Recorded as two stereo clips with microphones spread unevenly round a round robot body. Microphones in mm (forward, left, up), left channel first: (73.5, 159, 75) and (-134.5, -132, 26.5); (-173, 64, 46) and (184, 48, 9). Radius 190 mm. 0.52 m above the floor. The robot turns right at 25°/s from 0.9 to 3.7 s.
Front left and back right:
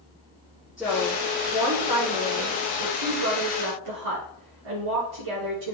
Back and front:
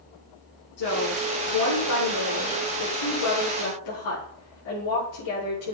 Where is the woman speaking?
145° left, 7 m; by 5.8 s 145° right, 7 m.